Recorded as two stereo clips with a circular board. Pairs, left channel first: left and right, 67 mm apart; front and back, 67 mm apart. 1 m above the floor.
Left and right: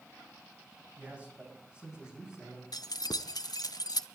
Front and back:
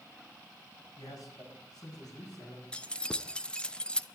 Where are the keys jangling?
75° left, 0.5 m.